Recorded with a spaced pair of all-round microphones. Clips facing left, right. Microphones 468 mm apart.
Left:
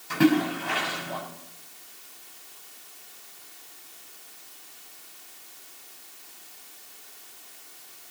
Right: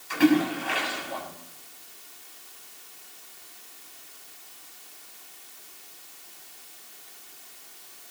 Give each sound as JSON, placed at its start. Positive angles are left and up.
{"t": 0.1, "sound": "a splash", "side_deg": 60, "distance_m": 6.5}